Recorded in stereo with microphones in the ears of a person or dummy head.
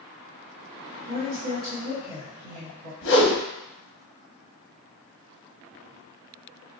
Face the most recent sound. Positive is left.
turn(degrees=60)  # may be behind; listen again after turning